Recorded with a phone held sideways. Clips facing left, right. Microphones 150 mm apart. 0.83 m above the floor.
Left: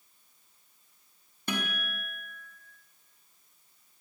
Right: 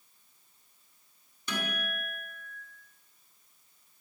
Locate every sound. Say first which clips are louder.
1.5 s a guitar: left 1 dB; 55° left (ahead or behind), 5 m